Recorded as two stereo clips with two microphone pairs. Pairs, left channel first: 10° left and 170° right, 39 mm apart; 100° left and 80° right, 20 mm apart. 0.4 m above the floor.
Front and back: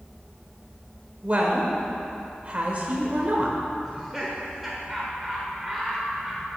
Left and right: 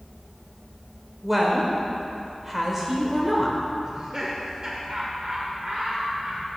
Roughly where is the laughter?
Right.